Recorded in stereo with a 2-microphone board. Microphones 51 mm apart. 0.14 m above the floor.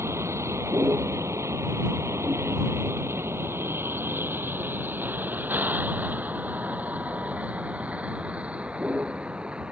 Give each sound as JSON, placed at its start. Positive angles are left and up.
{"t": 0.0, "sound": "a vehicle", "side_deg": -65}